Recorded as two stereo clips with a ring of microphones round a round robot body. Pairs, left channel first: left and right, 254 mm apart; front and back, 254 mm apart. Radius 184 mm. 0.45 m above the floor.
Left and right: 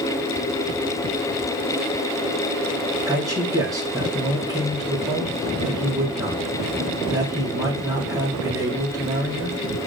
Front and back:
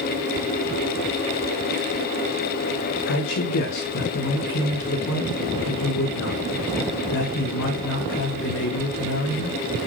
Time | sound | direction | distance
3.1 | a man speaking | 15° right | 4 m